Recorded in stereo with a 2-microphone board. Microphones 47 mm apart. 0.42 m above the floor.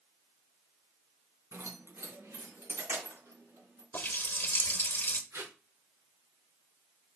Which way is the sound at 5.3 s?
65° right (ahead or behind).